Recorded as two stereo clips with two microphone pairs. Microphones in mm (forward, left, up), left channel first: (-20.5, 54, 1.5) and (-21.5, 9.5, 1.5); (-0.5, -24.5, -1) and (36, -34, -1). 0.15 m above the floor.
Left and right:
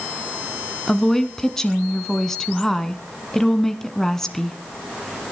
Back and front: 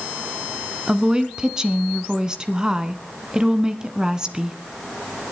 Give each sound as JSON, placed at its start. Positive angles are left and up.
{"t": 0.9, "sound": "a woman speaking", "azimuth_deg": 25, "distance_m": 1.4}